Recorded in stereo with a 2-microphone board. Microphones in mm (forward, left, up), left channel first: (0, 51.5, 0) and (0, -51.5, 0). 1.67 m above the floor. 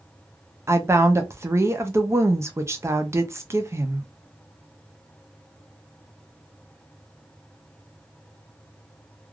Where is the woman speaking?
25° right (ahead or behind), 0.5 m.